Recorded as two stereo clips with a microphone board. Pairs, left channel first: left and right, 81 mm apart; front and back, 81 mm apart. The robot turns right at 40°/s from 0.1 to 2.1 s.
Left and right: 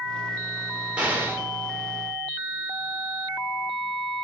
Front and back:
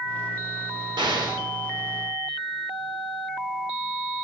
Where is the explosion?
165° right, 4.5 m; by 1.4 s 145° right, 4.5 m.